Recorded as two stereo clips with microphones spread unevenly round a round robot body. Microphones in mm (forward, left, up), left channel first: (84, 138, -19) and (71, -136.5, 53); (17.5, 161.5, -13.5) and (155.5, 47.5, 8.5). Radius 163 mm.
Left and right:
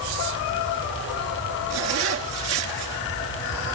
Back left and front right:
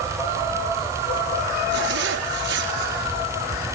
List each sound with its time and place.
1.7 s a zipper: 55° right, 3 m